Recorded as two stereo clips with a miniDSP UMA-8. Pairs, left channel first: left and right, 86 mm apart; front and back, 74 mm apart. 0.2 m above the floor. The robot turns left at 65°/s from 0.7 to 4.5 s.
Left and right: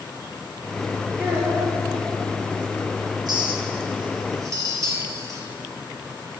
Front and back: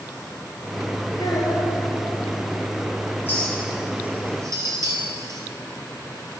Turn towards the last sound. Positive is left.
turn(degrees=-140)